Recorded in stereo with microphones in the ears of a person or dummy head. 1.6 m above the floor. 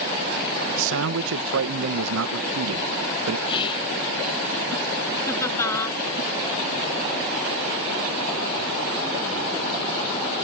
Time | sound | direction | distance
0.8 | a man speaking | 70° right (ahead or behind) | ?
3.5 | whispering | 25° left (ahead or behind) | ?
5.3 | laughter | 15° left (ahead or behind) | ?